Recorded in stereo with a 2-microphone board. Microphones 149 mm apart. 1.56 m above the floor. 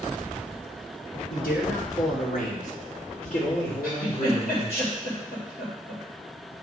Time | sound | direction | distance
1.3 | a man speaking | 80° left | 3.5 m
3.8 | a giggle | 85° left | 3.5 m